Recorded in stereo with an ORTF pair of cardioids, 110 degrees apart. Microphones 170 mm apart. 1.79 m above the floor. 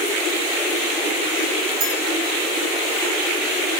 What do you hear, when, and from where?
1.8 s a clink: 65° right, 6.5 m